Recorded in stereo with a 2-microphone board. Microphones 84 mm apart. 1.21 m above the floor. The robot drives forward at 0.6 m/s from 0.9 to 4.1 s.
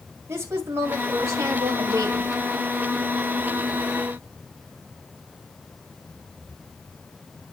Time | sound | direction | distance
0.3 | a woman speaking | 35° right (ahead or behind) | 2.0 m